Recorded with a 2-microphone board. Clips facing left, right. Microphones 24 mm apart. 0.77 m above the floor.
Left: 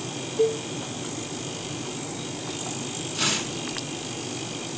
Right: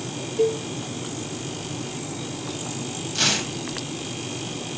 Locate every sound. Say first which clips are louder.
0.4 s a cowbell: right 1 dB; 55° right (ahead or behind), 2.0 m
3.1 s tearing paper: right 4 dB; 70° right (ahead or behind), 2 m